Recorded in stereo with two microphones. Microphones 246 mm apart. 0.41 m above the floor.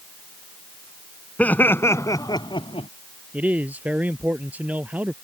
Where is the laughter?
5° left (ahead or behind); by 2.9 s 25° left (ahead or behind).